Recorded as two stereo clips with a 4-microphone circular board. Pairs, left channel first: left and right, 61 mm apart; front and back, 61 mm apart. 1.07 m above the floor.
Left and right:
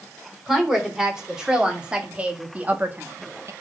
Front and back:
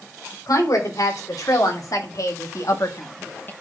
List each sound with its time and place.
0.5 s a woman speaking: 5° right, 4 m; by 3.5 s 55° right, 1.1 m